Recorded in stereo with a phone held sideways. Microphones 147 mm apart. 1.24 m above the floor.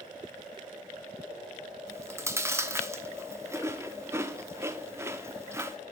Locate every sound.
1.9 s chewing: 20° right (ahead or behind), 1.1 m